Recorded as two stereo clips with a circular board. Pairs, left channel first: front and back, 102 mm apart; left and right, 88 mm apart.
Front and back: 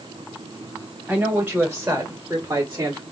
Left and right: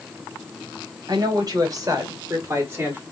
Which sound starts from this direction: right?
A woman speaking, at 1.1 s.